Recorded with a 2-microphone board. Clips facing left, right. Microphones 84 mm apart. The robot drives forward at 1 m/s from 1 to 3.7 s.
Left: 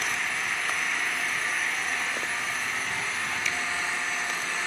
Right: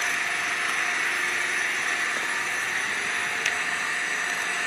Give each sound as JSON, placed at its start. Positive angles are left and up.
{"t": 0.0, "sound": "an engine running", "side_deg": -85, "distance_m": 7.0}
{"t": 3.5, "sound": "a finger snap", "side_deg": -65, "distance_m": 0.9}